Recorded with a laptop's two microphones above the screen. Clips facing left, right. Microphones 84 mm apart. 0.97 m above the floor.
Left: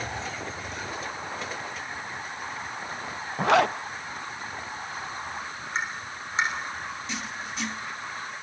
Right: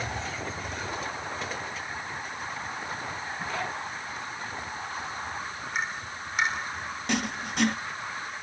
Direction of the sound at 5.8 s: 25° left (ahead or behind).